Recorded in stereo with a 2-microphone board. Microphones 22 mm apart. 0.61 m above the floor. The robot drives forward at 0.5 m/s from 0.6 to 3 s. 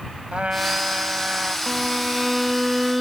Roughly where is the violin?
Right.